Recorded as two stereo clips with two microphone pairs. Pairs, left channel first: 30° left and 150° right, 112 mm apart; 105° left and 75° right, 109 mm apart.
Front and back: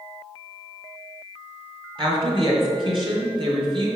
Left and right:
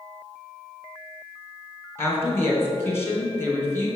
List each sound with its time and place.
2.0 s a woman speaking: 170° left, 3 m